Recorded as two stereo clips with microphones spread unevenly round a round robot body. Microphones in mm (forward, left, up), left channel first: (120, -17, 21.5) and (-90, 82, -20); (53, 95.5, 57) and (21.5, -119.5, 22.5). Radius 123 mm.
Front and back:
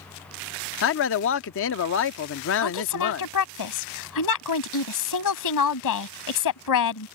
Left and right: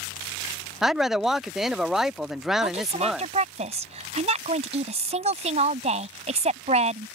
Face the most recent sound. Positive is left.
turn(degrees=-40)